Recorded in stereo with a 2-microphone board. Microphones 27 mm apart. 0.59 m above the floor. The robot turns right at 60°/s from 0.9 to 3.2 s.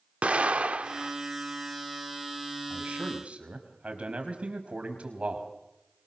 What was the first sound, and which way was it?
An explosion, 55° right (ahead or behind).